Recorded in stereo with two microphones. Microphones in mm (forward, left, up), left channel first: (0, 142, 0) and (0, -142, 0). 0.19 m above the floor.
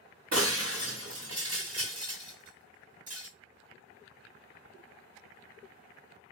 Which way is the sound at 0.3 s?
60° right (ahead or behind).